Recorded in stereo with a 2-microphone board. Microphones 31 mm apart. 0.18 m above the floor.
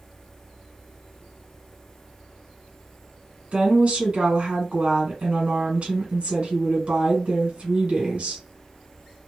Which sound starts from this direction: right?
A woman speaking, at 3.5 s.